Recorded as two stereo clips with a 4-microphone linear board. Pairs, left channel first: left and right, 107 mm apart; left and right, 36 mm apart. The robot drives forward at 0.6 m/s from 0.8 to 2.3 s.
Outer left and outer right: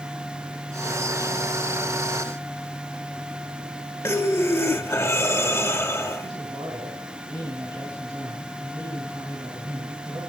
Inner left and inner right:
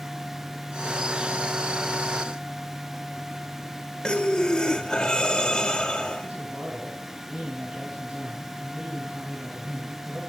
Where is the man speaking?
35° right (ahead or behind), 6.5 m.